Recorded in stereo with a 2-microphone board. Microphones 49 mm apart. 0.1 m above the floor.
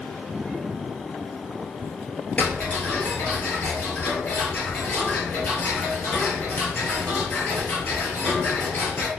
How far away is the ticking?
About 0.9 m.